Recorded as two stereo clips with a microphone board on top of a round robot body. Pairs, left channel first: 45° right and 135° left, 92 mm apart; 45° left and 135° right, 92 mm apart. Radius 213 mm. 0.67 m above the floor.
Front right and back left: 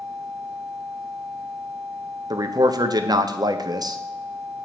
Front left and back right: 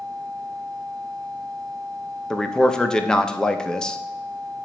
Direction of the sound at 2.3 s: 125° left.